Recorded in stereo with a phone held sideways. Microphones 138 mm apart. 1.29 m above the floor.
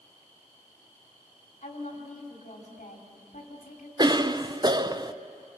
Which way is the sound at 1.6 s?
60° left (ahead or behind).